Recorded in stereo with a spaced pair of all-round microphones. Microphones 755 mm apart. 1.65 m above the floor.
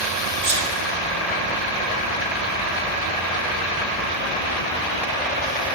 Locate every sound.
0.4 s a sneeze: 50° right (ahead or behind), 2.5 m